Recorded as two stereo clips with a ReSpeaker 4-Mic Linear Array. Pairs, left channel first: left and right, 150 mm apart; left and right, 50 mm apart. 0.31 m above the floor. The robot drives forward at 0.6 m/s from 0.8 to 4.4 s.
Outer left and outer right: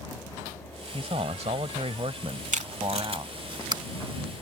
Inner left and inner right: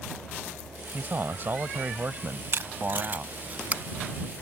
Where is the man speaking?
40° right (ahead or behind); by 3.3 s 30° right (ahead or behind).